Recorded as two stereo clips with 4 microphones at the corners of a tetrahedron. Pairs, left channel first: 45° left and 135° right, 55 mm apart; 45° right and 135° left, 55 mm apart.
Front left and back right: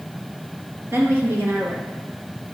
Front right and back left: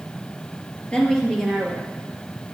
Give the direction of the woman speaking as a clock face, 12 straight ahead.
4 o'clock.